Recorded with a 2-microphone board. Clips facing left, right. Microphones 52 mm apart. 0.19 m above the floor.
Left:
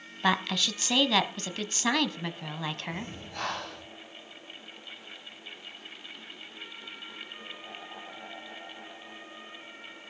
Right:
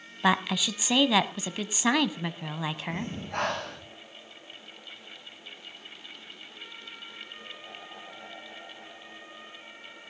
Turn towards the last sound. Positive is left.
turn(degrees=-65)  # may be behind; listen again after turning